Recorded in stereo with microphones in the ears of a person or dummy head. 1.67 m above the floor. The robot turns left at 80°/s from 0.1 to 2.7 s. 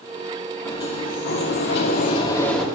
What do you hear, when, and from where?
0.7 s a sliding door: 160° left, 2.5 m; by 2.6 s straight ahead, 2.5 m